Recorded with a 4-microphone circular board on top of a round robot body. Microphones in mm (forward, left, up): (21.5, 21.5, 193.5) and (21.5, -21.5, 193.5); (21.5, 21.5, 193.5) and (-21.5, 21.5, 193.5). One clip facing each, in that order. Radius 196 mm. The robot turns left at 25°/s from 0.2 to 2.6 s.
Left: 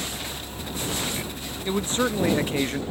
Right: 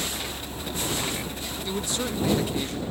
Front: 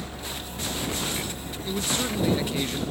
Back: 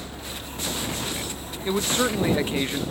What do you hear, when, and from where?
1.6 s a man speaking: 140° left; by 2.8 s 120° left